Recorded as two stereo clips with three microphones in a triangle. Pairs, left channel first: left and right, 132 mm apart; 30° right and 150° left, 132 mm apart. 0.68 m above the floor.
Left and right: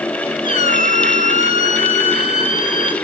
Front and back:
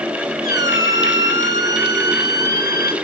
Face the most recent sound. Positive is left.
turn(degrees=90)